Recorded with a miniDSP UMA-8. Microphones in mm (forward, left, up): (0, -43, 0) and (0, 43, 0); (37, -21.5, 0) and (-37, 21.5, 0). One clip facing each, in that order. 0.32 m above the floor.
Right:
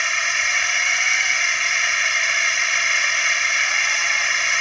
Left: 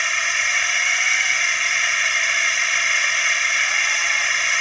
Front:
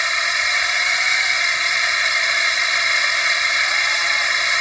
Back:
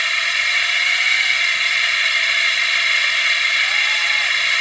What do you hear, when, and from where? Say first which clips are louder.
0.0 s a drone: even, front 1 dB; 5° right